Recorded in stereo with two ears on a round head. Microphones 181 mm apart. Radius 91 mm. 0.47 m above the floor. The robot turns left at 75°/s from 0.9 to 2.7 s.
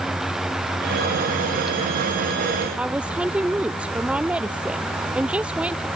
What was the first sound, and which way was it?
A woman speaking, 5° right (ahead or behind).